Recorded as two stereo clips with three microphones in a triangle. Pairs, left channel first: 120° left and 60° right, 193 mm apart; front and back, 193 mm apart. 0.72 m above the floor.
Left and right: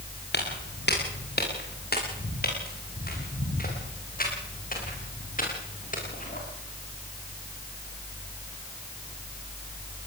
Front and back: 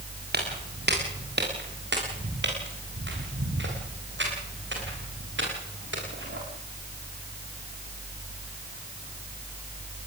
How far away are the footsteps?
About 6.5 m.